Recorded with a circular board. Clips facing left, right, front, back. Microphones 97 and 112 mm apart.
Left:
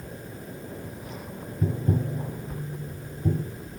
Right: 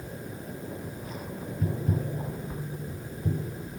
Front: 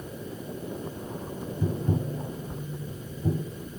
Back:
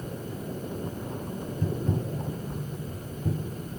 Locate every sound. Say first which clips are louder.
1.6 s tapping: left 4 dB, front 2 dB; 70° left, 0.6 m